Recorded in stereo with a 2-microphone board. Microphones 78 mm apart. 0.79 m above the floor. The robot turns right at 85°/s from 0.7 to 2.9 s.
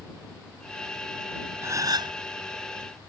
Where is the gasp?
145° right; by 2.2 s 100° right.